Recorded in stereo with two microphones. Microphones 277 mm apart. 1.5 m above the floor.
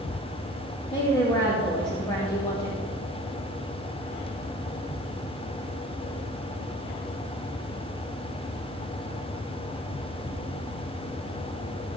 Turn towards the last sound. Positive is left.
turn(degrees=15)  # may be behind; listen again after turning